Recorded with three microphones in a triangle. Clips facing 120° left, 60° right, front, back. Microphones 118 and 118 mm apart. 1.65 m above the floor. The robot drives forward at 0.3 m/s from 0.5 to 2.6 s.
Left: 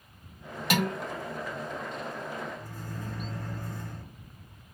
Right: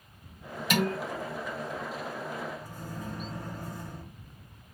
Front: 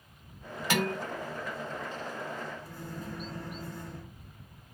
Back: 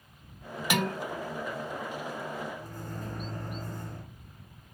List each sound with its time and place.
0.7 s dishes clattering: 100° left, 2.0 m; by 0.9 s 105° left, 2.0 m
2.6 s a microwave: 135° right, 1.3 m